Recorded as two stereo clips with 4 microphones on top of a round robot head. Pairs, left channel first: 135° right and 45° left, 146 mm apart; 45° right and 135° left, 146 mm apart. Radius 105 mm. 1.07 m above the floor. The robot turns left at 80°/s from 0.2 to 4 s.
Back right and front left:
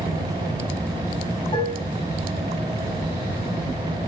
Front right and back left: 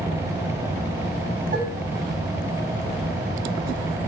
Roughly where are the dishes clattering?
Behind.